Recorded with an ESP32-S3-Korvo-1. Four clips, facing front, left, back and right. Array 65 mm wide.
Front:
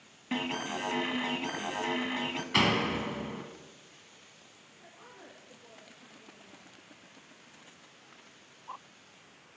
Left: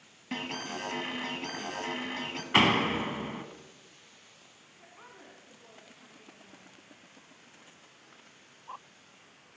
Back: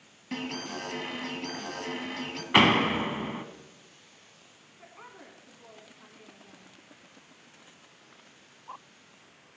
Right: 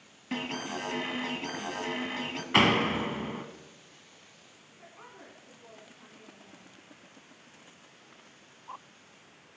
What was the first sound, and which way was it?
An alarm, 5° right.